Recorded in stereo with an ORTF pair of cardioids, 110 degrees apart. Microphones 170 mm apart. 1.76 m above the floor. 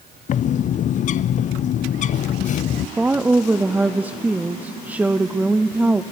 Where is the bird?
50° left, 0.5 m.